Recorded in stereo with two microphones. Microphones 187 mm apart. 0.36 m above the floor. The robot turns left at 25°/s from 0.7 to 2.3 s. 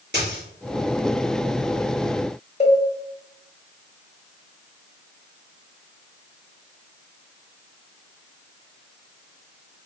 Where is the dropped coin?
65° right (ahead or behind), 2.5 m.